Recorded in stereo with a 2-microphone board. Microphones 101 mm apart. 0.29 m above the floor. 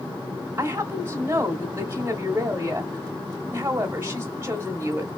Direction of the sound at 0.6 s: 20° right (ahead or behind).